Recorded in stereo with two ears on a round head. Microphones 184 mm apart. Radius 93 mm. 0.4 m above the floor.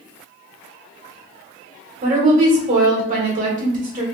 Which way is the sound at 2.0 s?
40° right (ahead or behind).